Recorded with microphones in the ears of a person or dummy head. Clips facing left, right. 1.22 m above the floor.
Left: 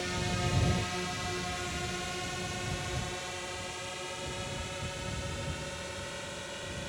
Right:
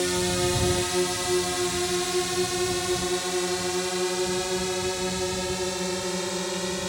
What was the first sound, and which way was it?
A drone, 65° right (ahead or behind).